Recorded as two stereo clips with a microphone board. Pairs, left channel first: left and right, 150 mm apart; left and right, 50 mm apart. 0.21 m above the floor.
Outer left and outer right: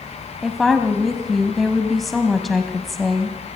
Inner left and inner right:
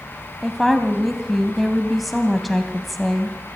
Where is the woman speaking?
Centre (ahead or behind), 1.1 m.